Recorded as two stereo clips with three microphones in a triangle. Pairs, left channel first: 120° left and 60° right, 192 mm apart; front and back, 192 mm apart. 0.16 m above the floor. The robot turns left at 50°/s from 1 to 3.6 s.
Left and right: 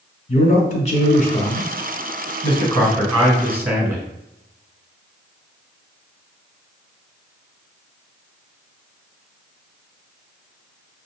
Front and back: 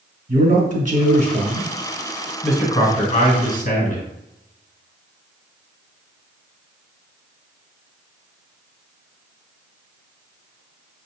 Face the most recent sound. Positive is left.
turn(degrees=15)